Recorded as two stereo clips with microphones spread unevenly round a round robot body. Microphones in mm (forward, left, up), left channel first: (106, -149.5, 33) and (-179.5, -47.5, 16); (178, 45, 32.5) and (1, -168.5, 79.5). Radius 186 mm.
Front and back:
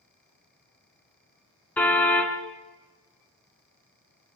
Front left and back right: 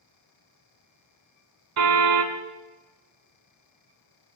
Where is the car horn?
105° right, 2.5 m.